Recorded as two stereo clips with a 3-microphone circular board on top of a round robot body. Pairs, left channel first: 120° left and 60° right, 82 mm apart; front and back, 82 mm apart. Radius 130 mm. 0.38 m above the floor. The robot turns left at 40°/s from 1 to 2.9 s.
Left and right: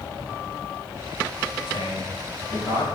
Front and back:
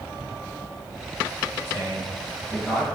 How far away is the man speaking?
About 4 m.